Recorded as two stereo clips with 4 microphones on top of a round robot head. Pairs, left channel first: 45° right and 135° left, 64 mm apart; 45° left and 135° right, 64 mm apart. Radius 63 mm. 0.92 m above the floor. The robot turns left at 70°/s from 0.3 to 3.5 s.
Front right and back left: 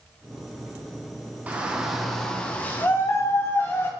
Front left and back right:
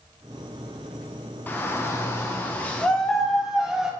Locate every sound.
1.5 s a shout: 85° left, 1.1 m; by 3.9 s 60° right, 1.1 m